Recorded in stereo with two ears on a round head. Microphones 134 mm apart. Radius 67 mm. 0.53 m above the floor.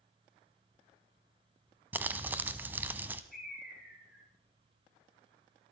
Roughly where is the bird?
Centre.